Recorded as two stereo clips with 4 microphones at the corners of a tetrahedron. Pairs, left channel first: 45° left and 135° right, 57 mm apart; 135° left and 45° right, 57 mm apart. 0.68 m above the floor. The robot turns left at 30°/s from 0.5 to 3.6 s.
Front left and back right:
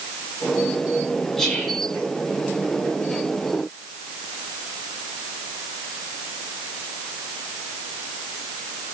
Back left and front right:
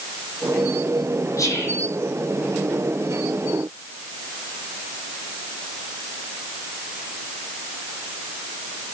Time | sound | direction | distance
1.4 | whispering | 125° left | 5.5 m